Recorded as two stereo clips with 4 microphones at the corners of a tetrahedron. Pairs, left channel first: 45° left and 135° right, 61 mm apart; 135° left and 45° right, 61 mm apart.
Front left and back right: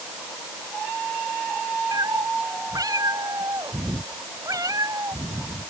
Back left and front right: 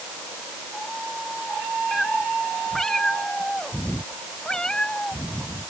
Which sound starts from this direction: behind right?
A cat meowing, at 1.9 s.